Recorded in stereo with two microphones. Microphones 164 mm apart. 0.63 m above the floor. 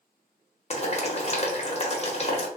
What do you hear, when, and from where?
0.7 s boiling: 40° left (ahead or behind), 0.7 m